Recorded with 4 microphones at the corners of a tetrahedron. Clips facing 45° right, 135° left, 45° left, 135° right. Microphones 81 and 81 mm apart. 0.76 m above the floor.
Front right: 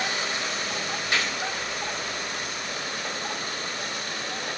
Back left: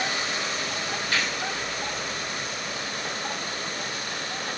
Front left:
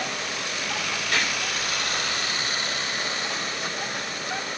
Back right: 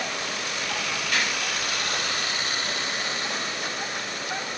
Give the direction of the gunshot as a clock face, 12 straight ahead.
11 o'clock.